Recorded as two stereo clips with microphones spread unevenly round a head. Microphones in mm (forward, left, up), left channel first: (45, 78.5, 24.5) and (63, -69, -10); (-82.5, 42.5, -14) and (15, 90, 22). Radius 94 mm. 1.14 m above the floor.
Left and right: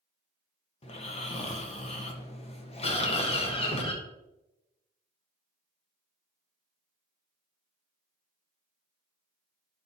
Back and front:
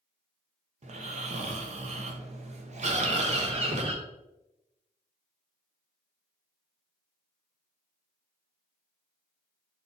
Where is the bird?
45° left, 1.8 m.